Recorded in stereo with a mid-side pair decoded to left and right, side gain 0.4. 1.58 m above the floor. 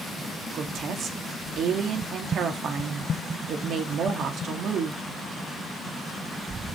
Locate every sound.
0.5 s a woman speaking: 65° right, 3.5 m